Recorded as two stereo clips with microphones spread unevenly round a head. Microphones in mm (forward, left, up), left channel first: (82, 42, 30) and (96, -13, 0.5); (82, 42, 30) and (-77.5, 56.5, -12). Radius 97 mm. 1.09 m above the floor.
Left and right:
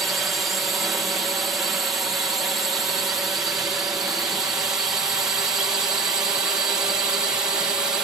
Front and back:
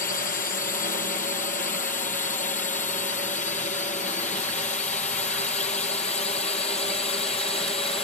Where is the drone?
35° right; by 8.1 s 65° right.